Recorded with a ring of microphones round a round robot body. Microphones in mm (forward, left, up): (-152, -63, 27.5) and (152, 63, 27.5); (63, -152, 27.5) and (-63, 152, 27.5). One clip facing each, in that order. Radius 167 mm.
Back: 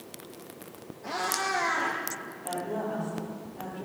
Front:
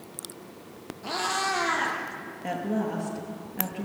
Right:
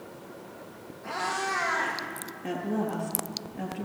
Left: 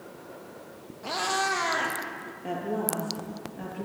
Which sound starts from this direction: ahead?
A woman speaking, at 2.4 s.